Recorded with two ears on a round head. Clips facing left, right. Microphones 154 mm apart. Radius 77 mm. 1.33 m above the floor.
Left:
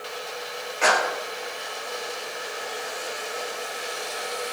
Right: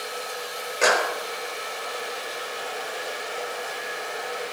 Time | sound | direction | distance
0.8 | a clap | 50° right (ahead or behind) | 4 m